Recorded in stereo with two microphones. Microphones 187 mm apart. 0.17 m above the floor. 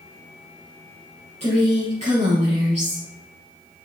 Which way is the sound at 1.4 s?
40° right (ahead or behind).